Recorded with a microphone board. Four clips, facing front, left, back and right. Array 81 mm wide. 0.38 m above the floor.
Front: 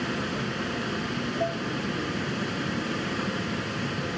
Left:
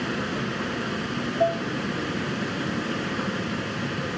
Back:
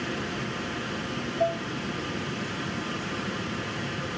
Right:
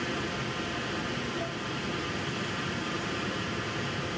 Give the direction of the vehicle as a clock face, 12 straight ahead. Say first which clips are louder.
Left 5 dB, front 2 dB; 10 o'clock.